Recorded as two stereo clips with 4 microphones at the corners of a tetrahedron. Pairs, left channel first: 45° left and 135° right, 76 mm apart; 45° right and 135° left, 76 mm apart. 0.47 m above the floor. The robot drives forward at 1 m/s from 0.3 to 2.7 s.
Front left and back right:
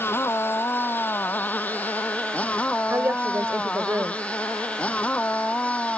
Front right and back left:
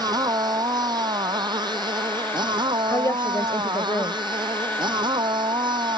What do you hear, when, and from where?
0.0 s a motorcycle: 105° left; by 6.0 s 120° left
2.9 s a woman speaking: 85° right